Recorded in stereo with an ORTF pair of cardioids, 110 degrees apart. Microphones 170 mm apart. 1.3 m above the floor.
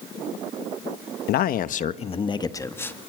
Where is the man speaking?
70° left, 1.2 m; by 3.0 s 10° left, 1.8 m.